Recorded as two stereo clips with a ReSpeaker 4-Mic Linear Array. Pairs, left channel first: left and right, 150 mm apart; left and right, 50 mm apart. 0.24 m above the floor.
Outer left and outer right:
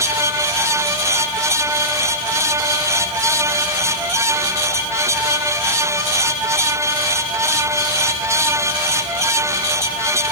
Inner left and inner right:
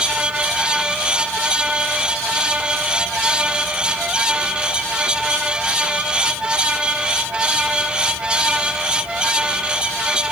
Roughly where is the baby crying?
I don't hear a baby crying.